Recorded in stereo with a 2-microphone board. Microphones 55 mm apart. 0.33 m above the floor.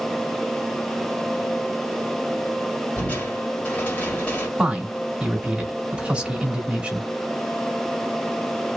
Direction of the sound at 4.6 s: 20° right (ahead or behind).